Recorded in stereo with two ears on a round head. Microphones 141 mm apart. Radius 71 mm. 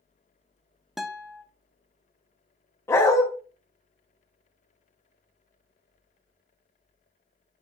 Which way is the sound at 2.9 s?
20° left (ahead or behind).